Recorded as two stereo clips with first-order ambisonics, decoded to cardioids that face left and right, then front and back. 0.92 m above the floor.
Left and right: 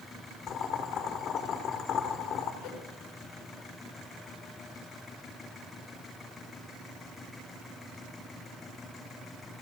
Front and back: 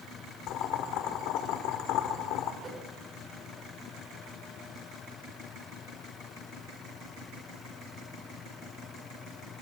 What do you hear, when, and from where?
0.5 s boiling: 35° left, 3 m
2.6 s a whoosh: 110° left, 3.5 m